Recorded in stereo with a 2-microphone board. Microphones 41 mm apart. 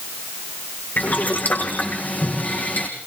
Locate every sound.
1.0 s boiling: 45° left (ahead or behind), 5 m